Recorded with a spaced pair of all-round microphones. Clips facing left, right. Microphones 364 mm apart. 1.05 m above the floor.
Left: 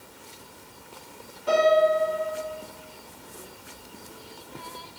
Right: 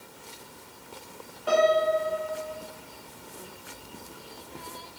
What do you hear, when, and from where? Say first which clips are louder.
1.5 s a piano: left 3 dB; 30° left (ahead or behind), 1.7 m